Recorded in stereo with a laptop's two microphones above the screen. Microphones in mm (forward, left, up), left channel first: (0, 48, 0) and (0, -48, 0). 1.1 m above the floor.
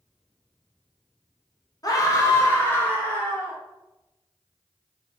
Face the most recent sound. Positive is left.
turn(degrees=15)  # may be behind; listen again after turning